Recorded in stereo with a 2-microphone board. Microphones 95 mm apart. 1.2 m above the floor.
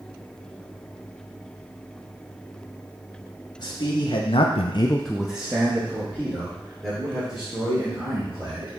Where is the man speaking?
50° left (ahead or behind), 1.7 m; by 8.7 s 30° right (ahead or behind), 5.5 m.